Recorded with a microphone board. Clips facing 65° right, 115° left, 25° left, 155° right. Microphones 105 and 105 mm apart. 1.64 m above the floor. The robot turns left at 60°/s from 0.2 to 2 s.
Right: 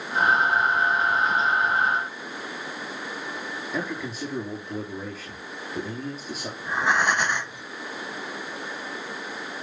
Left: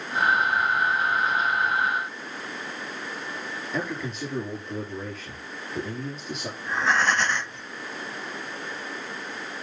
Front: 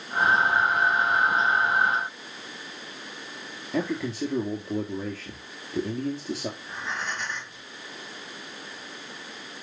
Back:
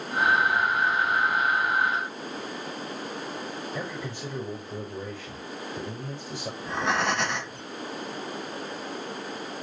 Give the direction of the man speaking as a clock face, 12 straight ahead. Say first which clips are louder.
Even, front 6 dB; 11 o'clock.